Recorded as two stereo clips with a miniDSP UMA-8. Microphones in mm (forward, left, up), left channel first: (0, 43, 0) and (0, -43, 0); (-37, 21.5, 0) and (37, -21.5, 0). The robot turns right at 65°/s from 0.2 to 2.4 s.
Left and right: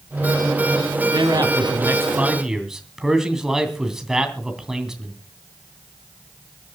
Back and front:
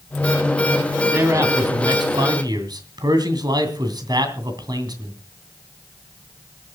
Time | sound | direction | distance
1.1 | a man speaking | 90° right | 2.5 m